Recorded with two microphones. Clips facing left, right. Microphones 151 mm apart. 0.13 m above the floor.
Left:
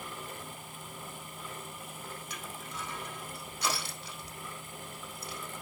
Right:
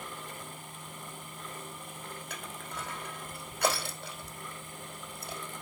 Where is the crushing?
55° right (ahead or behind), 3.5 m.